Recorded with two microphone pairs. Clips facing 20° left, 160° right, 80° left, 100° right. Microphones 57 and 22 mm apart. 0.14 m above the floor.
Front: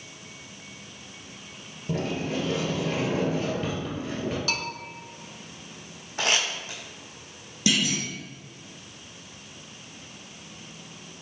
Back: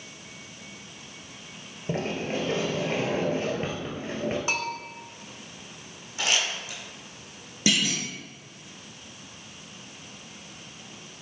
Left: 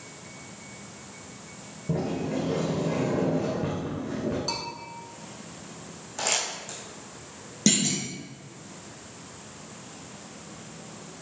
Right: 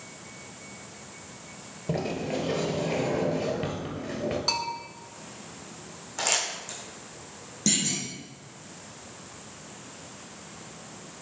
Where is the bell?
120° right, 0.7 m.